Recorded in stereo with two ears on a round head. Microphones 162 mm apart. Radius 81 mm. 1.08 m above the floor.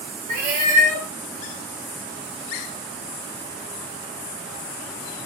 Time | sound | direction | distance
0.3 | a cat meowing | 45° right (ahead or behind) | 1.5 m